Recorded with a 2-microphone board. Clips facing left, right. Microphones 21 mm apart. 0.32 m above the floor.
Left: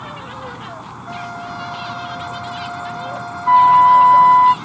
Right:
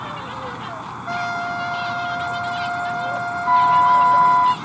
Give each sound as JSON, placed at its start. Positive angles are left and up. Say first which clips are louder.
{"t": 0.0, "sound": "an insect", "louder": "right 1 dB", "side_deg": -25}
{"t": 1.1, "sound": "a trumpet", "louder": "right 5 dB", "side_deg": -85}
{"t": 3.5, "sound": "a flute", "louder": "left 5 dB", "side_deg": 65}